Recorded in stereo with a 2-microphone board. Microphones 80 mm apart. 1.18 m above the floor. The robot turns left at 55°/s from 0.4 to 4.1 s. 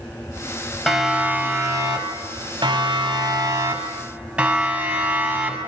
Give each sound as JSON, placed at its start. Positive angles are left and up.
{"t": 0.9, "sound": "a siren", "side_deg": 0, "distance_m": 5.5}